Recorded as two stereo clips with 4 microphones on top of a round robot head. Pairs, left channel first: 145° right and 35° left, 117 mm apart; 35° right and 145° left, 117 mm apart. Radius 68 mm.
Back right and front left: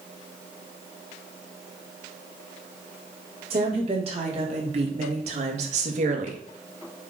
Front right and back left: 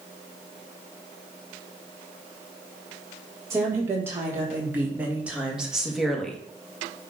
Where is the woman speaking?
75° left, 4 m; by 6.4 s 50° left, 1.7 m.